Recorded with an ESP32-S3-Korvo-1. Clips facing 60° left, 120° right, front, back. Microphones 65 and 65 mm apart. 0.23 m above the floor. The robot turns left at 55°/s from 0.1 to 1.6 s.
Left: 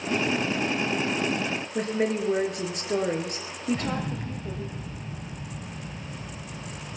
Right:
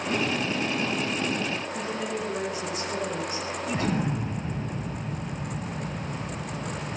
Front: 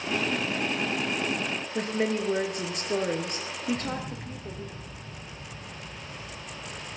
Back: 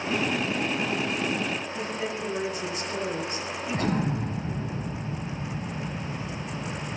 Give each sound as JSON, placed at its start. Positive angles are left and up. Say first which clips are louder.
{"t": 1.8, "sound": "a woman speaking", "louder": "left 4 dB, front 3 dB", "azimuth_deg": 35, "distance_m": 4.0}
{"t": 3.7, "sound": "an explosion", "louder": "right 3 dB, back 7 dB", "azimuth_deg": -175, "distance_m": 0.6}